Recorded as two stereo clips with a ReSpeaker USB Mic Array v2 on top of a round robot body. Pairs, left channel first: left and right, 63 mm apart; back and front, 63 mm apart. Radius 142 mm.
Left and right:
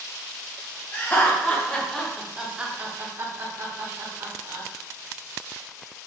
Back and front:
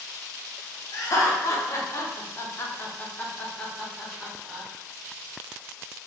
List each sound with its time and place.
0.9 s laughter: 150° left, 1.6 m; by 4.7 s 85° right, 1.7 m